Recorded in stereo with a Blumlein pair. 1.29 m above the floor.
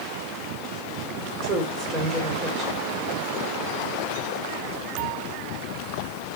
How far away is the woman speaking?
About 4 m.